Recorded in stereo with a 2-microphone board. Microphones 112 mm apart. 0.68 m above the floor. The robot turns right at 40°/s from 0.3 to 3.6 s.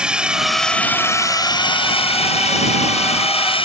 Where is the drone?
10° right; by 3.6 s 125° left.